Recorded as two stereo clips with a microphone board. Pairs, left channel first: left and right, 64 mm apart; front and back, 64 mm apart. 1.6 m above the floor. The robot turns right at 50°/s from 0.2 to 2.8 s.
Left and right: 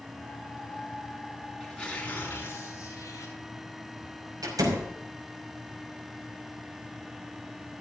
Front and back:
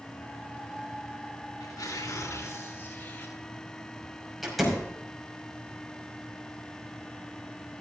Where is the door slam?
90° right, 5 m.